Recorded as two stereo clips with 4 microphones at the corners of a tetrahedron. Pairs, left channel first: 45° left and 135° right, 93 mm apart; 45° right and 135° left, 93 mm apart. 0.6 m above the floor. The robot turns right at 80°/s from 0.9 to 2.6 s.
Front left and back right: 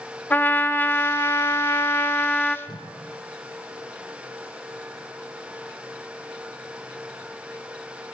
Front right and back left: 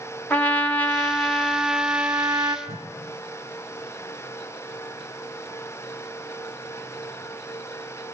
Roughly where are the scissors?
No scissors in this recording.